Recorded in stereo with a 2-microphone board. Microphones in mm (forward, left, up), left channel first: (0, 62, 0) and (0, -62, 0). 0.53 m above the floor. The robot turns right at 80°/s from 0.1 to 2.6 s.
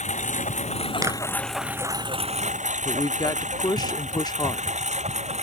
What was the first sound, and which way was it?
A lawn mower, 70° left (ahead or behind).